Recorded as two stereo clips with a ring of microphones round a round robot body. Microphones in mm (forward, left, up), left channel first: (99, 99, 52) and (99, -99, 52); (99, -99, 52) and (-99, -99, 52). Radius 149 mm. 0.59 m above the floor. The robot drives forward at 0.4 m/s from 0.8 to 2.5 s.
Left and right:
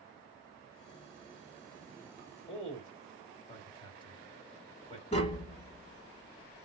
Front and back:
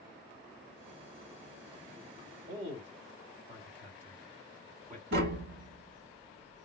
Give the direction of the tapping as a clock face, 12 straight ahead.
7 o'clock.